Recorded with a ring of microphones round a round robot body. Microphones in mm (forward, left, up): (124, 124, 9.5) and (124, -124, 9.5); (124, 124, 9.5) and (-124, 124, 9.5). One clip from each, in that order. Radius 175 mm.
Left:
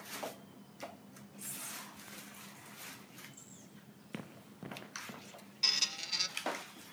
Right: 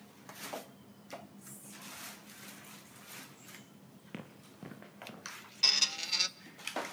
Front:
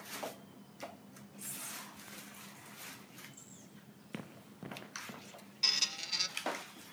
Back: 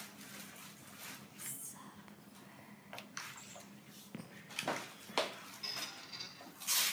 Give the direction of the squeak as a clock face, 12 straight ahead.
1 o'clock.